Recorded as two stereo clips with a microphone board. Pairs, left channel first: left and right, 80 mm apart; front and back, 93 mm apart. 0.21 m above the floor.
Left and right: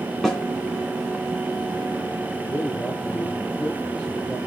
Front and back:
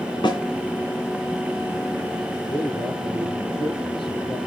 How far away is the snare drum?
About 2.5 m.